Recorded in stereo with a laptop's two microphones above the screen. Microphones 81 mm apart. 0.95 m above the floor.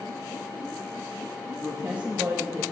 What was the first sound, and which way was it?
A woman speaking, 10° right (ahead or behind).